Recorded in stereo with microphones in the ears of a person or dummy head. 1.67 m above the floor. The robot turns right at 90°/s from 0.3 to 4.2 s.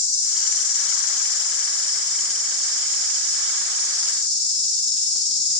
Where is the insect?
15° left, 1.7 m; by 5.6 s 5° left, 1.7 m.